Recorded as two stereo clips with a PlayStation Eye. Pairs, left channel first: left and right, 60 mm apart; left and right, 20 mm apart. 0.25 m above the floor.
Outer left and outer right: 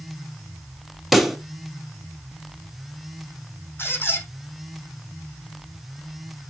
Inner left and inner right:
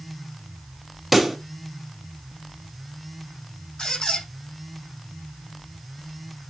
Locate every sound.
1.1 s a pop: centre (ahead or behind), 1.3 m
3.8 s a squeak: 35° left (ahead or behind), 5 m